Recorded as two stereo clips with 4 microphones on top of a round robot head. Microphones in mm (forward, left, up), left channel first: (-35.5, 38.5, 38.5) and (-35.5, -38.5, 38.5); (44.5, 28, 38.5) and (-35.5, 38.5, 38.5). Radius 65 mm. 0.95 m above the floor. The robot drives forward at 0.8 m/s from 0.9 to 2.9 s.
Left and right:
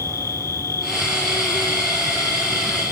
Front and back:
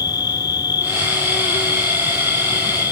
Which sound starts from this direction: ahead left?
An insect, at 0.0 s.